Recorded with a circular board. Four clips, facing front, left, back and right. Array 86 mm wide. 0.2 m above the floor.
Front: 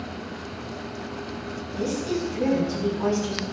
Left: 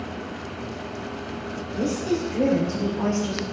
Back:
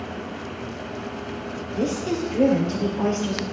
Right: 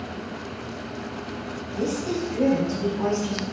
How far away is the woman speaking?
About 3.5 m.